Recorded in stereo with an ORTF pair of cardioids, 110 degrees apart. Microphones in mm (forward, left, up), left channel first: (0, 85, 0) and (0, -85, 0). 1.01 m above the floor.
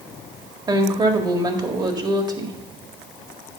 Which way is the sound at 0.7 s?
25° right.